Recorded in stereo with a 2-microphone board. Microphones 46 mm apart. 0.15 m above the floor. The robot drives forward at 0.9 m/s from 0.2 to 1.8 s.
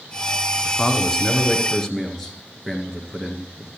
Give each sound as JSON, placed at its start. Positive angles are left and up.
{"t": 0.7, "sound": "a man speaking", "side_deg": 10, "distance_m": 1.5}